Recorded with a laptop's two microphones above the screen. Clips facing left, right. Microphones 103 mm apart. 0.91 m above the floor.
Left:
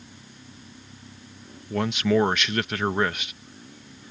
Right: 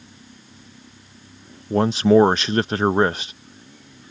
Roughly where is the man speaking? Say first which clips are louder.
Right 7 dB; right.